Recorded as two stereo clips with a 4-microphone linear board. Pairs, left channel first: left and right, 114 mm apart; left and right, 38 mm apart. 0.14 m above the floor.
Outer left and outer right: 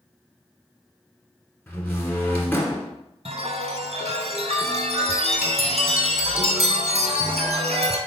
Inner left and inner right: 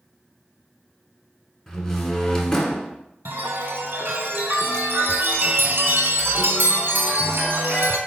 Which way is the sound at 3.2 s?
70° right (ahead or behind).